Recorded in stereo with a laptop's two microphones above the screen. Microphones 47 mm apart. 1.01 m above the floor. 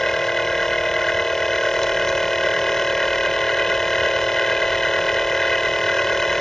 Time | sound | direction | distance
0.0 | a machine running | 10° left (ahead or behind) | ?